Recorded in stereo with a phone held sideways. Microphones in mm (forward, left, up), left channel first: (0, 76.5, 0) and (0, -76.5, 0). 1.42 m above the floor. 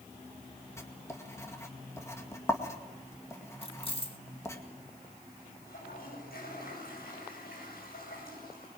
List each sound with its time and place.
0.8 s writing: 20° left (ahead or behind), 2 m
3.6 s keys jangling: 35° left (ahead or behind), 1.4 m
5.7 s a toilet flushing: 90° left, 9.5 m